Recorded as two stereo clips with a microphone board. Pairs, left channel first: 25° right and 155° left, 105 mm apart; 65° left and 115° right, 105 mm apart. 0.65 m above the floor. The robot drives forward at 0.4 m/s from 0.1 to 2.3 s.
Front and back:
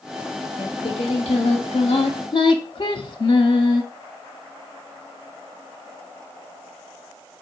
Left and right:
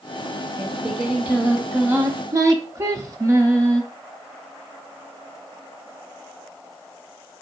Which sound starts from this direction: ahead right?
Singing, at 0.6 s.